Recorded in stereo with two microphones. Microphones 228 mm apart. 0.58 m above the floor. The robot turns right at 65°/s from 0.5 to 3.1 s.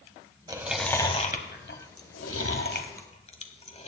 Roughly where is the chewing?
Centre.